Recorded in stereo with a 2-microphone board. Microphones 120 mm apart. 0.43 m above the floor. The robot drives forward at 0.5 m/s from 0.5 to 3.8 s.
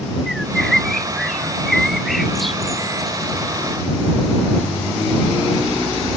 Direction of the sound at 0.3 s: Centre (ahead or behind).